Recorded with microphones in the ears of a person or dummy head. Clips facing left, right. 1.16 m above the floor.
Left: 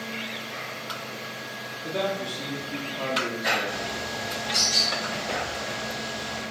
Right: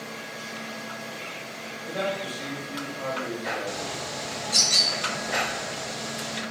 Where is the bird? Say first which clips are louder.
Left 1 dB; 15° right (ahead or behind), 0.6 m.